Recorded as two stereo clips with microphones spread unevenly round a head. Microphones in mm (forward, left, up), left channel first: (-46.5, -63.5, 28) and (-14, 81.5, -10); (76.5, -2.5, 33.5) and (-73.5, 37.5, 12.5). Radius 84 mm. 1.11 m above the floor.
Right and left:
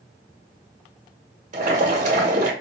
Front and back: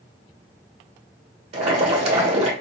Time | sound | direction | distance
1.5 | boiling | 115° left | 1.2 m